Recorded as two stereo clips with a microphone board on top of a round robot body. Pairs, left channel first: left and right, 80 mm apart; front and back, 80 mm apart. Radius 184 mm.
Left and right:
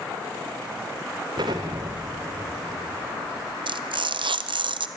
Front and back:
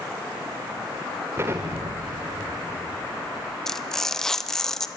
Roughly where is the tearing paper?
Right.